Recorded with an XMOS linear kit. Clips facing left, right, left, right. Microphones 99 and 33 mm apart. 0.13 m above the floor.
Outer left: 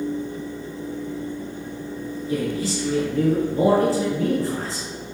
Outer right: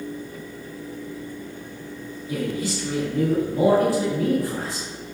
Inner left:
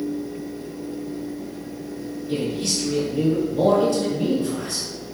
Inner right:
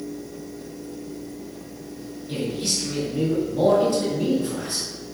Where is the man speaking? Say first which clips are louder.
Outer left 2 dB, inner left 2 dB; 10° right (ahead or behind), 1.6 m.